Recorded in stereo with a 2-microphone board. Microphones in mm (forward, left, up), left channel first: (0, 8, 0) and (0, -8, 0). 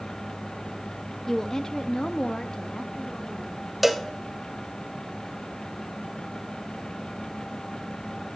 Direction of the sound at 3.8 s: 10° right (ahead or behind).